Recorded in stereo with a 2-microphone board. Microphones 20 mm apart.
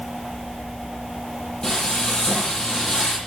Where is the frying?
50° left (ahead or behind), 10 m.